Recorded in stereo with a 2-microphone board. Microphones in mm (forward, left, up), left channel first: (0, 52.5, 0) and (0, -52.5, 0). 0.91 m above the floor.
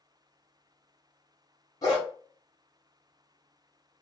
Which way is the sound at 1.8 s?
35° left (ahead or behind).